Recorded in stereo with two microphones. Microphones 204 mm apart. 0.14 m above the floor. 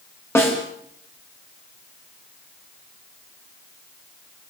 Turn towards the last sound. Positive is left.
turn(degrees=10)  # may be behind; listen again after turning